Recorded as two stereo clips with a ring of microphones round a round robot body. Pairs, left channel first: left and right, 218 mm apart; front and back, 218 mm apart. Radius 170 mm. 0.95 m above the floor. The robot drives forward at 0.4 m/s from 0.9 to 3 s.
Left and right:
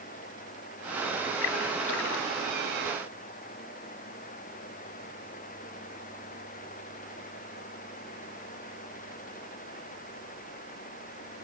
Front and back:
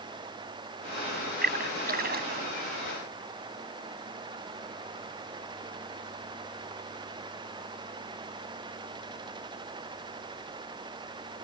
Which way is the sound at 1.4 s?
135° left.